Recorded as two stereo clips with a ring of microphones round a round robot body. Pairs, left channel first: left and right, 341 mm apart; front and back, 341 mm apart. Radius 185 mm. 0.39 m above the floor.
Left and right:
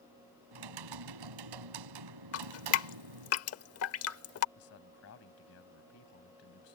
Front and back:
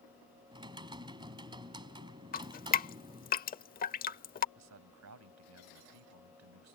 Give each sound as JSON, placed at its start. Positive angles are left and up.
{"t": 0.5, "sound": "typing on a keyboard", "azimuth_deg": -100}
{"t": 2.3, "sound": "dripping", "azimuth_deg": 60}
{"t": 4.5, "sound": "a man speaking", "azimuth_deg": 140}